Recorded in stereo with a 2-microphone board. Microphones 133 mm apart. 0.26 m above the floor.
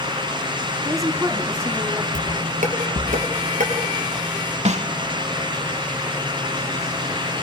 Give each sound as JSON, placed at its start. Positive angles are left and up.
{"t": 0.8, "sound": "a woman speaking", "side_deg": -25, "distance_m": 2.0}
{"t": 2.1, "sound": "dishes clattering", "side_deg": -65, "distance_m": 3.5}
{"t": 4.7, "sound": "a snare drum", "side_deg": -55, "distance_m": 0.7}